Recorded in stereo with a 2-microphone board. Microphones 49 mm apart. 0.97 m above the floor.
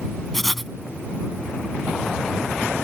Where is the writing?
5° left (ahead or behind).